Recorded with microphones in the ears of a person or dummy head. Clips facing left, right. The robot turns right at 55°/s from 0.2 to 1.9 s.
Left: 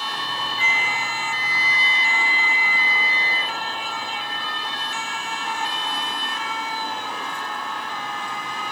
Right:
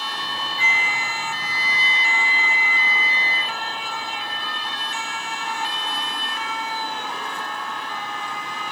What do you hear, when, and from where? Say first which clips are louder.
0.6 s a flute: even; 95° right; by 3.5 s 25° right